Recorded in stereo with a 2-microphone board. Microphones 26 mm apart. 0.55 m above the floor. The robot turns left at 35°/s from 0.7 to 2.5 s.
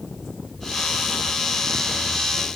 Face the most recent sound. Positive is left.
No sound to turn to.